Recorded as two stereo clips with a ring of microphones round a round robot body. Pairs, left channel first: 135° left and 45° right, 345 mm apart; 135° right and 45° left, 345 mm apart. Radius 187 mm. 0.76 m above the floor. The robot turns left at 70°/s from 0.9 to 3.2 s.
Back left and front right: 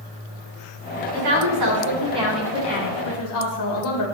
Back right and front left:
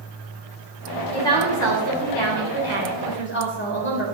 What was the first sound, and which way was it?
A woman speaking, 50° right.